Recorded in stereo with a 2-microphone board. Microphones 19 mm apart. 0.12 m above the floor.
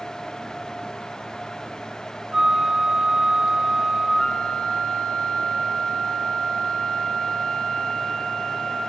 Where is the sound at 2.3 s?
50° right (ahead or behind), 3.5 m.